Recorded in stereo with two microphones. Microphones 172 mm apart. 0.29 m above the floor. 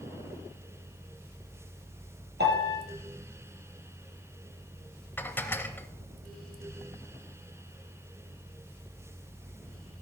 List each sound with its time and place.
2.4 s a piano: 80° right, 2.5 m
5.2 s dishes clattering: 10° left (ahead or behind), 0.7 m